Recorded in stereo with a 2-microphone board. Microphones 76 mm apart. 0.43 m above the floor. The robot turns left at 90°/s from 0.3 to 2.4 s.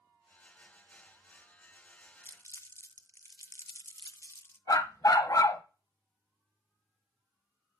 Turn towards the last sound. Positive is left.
turn(degrees=50)  # may be behind; listen again after turning